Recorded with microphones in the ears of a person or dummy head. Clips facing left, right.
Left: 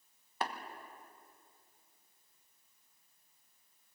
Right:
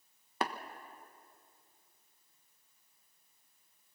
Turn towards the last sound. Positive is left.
turn(degrees=-60)  # may be behind; listen again after turning